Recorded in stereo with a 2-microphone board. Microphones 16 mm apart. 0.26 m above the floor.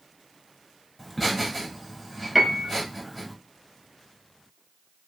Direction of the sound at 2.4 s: 15° right (ahead or behind).